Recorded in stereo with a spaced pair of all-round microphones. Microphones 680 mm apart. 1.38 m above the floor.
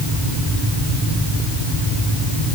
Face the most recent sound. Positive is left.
No sound to turn to.